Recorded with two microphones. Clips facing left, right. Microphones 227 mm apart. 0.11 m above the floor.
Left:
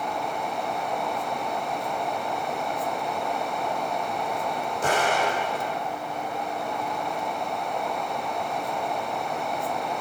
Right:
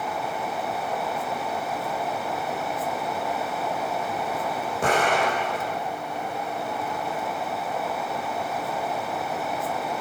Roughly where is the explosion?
Right.